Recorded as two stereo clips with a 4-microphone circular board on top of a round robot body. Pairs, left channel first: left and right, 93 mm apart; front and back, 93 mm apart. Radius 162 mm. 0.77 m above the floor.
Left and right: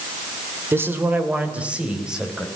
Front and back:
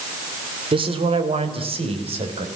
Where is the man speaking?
155° right, 3 m; by 2.5 s 175° right, 5 m.